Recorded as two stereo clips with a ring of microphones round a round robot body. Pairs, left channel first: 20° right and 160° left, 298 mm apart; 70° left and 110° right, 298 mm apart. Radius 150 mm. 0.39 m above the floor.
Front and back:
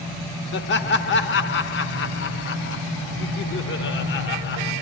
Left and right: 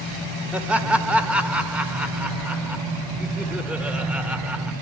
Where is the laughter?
30° right, 0.9 m.